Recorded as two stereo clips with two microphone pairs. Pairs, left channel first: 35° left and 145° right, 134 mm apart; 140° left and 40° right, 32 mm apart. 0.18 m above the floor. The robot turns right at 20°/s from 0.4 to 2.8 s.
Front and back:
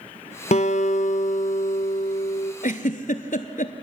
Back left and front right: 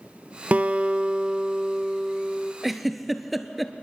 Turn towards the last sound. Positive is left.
turn(degrees=45)